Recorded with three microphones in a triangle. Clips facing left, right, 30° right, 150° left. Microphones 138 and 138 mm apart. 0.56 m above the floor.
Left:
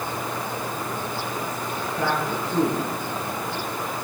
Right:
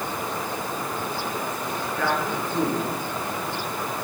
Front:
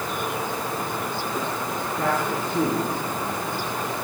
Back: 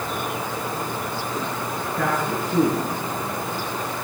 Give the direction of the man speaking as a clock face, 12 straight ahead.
7 o'clock.